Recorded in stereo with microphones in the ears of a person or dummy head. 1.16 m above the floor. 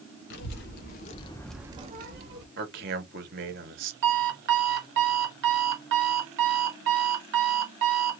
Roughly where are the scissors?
No scissors in this recording.